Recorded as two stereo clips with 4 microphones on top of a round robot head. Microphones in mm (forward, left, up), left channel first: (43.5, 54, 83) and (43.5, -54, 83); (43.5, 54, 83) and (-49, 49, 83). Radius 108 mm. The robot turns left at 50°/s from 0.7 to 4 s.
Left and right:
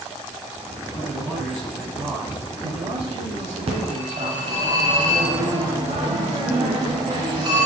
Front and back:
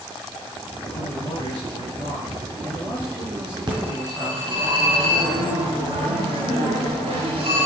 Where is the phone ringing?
130° right, 4 m; by 7.7 s 145° right, 4 m.